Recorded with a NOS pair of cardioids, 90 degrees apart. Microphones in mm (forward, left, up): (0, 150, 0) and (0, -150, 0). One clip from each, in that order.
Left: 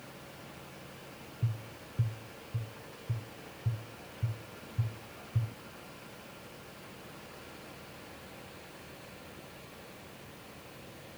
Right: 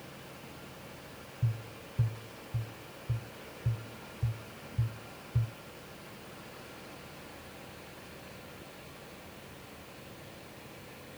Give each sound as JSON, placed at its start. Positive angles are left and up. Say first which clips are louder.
{"t": 1.4, "sound": "tapping", "louder": "right 2 dB", "azimuth_deg": -5, "distance_m": 0.9}